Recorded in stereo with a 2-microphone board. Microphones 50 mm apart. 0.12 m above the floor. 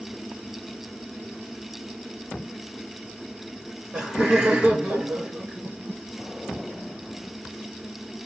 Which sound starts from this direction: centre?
Laughter, at 3.5 s.